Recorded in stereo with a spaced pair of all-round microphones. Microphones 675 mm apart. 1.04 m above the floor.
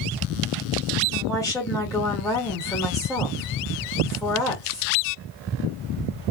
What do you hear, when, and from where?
1.1 s a woman speaking: 5° left (ahead or behind), 1.8 m